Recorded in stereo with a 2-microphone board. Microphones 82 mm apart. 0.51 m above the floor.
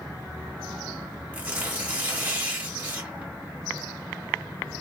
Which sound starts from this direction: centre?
Tearing paper, at 1.3 s.